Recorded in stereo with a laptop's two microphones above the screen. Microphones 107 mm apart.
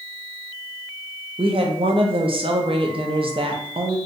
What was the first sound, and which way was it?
A woman speaking, 55° right (ahead or behind).